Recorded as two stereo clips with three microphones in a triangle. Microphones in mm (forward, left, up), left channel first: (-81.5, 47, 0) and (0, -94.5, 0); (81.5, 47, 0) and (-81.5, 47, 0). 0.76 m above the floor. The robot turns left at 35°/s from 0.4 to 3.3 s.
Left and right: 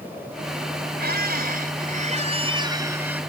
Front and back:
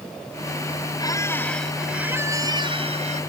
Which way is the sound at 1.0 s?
65° right.